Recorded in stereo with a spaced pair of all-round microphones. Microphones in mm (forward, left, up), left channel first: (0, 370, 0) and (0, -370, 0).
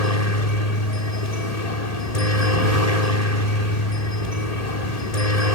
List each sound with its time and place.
0.0 s a helicopter: 55° left (ahead or behind)